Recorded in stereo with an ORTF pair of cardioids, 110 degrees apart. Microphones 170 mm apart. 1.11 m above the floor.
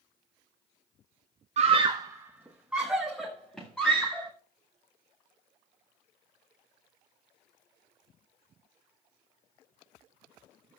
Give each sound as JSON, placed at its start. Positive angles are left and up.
{"t": 1.6, "sound": "a scream", "azimuth_deg": -45, "distance_m": 0.6}